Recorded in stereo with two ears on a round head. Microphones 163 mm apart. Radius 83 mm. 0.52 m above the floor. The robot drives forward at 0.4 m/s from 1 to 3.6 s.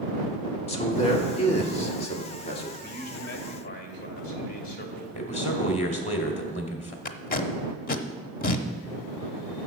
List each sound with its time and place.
0.7 s a man speaking: 35° left (ahead or behind), 1.5 m
2.8 s a man speaking: 60° left (ahead or behind), 2 m; by 5.0 s 55° left (ahead or behind), 2 m
5.1 s a man speaking: 40° left (ahead or behind), 2 m
7.0 s tape being pulled: 50° left (ahead or behind), 0.8 m